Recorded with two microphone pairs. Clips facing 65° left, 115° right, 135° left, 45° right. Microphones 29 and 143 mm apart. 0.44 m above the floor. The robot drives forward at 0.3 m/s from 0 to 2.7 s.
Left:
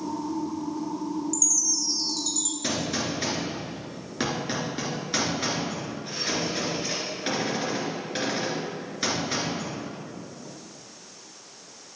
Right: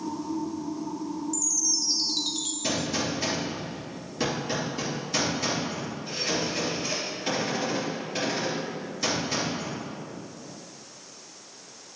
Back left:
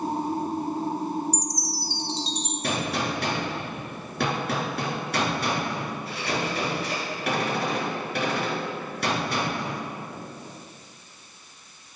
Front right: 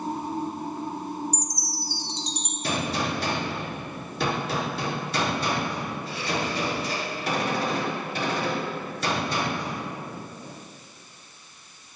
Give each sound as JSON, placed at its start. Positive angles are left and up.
{"t": 1.3, "sound": "a chime", "azimuth_deg": -155, "distance_m": 1.0}
{"t": 2.6, "sound": "a gunshot", "azimuth_deg": 110, "distance_m": 3.5}